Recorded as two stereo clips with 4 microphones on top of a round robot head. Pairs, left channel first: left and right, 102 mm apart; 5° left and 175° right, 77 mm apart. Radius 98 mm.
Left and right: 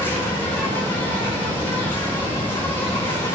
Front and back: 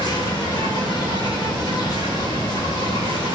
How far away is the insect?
About 6 m.